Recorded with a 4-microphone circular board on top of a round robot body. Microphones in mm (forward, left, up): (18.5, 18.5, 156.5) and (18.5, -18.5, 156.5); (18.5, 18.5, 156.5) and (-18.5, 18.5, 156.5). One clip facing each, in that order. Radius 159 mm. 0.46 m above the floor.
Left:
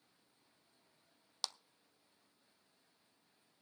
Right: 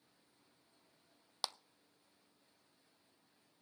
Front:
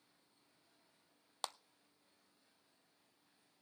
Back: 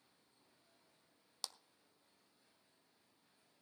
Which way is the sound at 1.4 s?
20° right.